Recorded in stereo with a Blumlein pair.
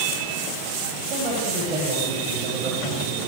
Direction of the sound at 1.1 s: 30° right.